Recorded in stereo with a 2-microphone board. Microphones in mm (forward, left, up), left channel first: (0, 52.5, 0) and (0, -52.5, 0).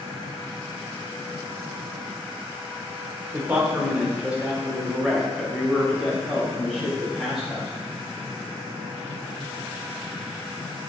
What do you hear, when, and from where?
3.3 s a man speaking: 15° right (ahead or behind), 1.7 m; by 7.7 s centre (ahead or behind), 4 m